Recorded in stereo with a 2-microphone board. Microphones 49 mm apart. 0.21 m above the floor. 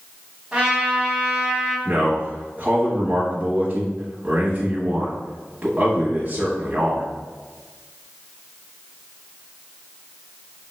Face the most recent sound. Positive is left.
turn(degrees=-30)  # may be behind; listen again after turning